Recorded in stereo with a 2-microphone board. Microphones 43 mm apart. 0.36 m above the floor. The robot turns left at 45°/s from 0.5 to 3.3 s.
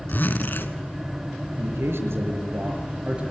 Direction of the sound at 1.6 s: 80° right.